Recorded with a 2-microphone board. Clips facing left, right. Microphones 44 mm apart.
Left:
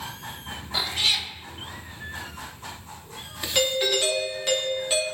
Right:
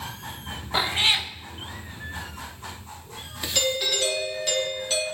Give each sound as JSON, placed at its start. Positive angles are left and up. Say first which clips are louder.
{"t": 0.7, "sound": "a cat meowing", "louder": "right 3 dB", "side_deg": -30, "distance_m": 0.6}
{"t": 3.5, "sound": "a doorbell", "louder": "left 2 dB", "side_deg": 20, "distance_m": 2.5}